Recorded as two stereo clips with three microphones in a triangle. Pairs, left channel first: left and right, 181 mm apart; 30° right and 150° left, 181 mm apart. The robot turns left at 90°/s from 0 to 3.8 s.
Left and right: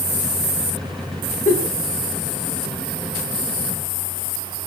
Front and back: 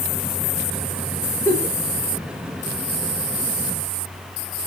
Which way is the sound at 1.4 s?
45° left.